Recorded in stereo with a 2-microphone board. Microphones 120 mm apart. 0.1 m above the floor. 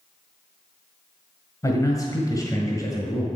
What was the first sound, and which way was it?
A man speaking, 25° left (ahead or behind).